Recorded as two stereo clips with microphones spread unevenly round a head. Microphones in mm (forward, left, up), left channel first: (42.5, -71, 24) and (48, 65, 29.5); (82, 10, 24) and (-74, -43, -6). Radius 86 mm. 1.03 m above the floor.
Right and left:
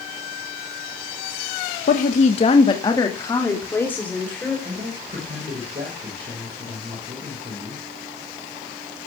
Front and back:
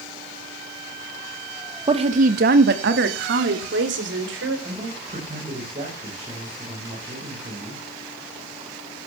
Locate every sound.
1.9 s a woman speaking: 110° right, 1.2 m; by 4.5 s 175° right, 4.5 m
4.7 s a man speaking: 140° left, 5.5 m